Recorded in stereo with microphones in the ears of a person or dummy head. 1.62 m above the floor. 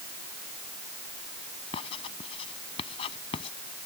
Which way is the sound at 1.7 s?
30° left (ahead or behind).